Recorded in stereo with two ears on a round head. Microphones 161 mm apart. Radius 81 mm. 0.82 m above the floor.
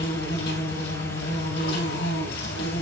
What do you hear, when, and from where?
0.0 s an insect: 70° left (ahead or behind), 3 m